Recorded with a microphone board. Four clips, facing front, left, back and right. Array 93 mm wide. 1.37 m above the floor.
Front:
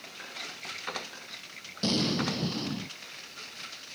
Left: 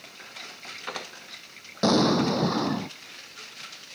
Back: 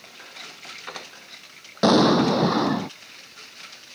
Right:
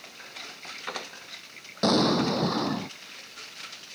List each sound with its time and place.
1.8 s an explosion: 175° left